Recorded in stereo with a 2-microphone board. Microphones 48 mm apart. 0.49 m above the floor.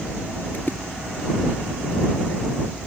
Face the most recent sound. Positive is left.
turn(degrees=40)  # may be behind; listen again after turning